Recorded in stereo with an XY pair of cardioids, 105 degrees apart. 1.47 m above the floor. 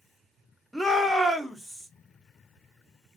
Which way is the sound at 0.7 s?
5° right.